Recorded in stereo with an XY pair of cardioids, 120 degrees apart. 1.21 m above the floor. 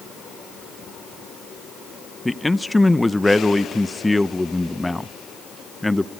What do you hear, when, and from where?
2.2 s a man speaking: 5° left, 0.8 m